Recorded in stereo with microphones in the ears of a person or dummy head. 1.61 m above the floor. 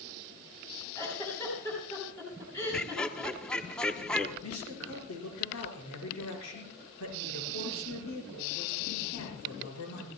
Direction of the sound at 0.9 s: 15° left (ahead or behind).